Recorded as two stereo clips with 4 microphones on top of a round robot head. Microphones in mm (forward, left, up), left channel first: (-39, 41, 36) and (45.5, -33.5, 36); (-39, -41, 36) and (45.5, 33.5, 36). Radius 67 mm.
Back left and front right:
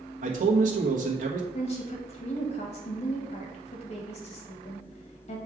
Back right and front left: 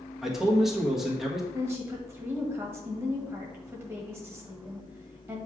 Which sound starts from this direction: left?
A woman speaking, at 1.5 s.